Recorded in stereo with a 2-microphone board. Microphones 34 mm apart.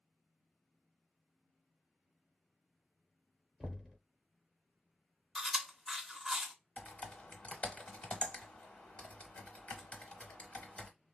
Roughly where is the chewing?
Centre.